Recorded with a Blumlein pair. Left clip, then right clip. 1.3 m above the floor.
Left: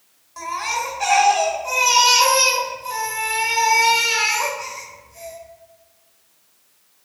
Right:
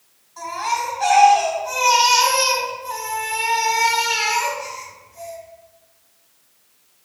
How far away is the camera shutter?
I don't hear a camera shutter.